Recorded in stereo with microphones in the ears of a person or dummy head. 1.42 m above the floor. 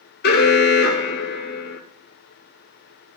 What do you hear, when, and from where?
0.2 s an alarm: 60° left (ahead or behind), 2.0 m